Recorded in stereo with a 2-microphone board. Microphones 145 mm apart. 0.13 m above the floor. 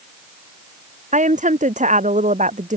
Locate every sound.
1.1 s a woman speaking: 60° right (ahead or behind)